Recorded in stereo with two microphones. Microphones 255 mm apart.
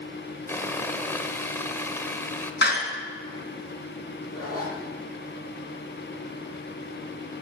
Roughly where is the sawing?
Centre.